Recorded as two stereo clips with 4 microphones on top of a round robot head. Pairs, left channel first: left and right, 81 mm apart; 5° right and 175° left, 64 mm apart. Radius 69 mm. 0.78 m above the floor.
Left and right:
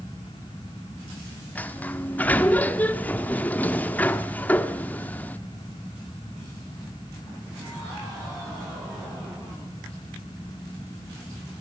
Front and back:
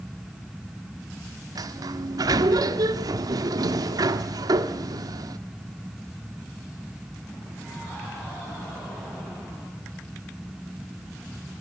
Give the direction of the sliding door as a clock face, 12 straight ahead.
7 o'clock.